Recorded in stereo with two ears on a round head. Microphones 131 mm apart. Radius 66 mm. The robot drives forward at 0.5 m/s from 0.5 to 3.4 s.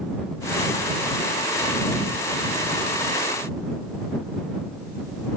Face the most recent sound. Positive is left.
No sound to turn to.